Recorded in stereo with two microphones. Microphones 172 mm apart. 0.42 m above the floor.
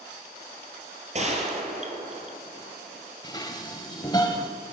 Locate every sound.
1.1 s a gunshot: 40° right (ahead or behind), 2 m
3.2 s dishes clattering: 25° left (ahead or behind), 1.2 m